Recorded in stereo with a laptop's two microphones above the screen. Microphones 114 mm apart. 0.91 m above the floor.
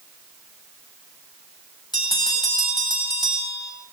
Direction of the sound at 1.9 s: 40° left (ahead or behind).